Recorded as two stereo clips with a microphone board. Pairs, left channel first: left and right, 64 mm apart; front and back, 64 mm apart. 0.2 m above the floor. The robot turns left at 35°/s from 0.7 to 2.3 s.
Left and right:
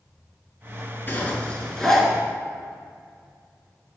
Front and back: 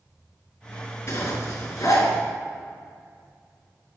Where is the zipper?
35° left, 3 m; by 2.1 s straight ahead, 3 m.